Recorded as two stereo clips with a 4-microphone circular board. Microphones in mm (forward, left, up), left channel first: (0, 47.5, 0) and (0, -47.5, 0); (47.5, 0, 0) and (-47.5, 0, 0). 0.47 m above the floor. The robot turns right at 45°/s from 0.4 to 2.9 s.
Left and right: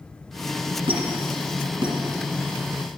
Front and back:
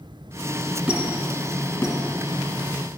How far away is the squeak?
About 2.0 m.